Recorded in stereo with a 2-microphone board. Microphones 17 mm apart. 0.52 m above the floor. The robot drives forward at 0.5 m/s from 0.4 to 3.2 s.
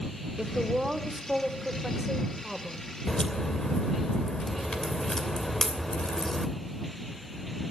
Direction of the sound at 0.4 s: 40° right (ahead or behind).